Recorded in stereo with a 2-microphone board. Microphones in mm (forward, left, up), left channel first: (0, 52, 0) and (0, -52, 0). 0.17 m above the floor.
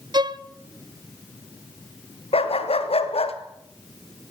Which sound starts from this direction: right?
A violin, at 0.1 s.